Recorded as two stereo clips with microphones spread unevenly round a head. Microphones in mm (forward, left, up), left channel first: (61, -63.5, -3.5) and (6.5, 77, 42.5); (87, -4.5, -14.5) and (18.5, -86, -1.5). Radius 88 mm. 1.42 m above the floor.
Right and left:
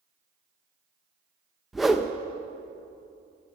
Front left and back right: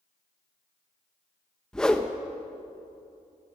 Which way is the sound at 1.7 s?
145° left.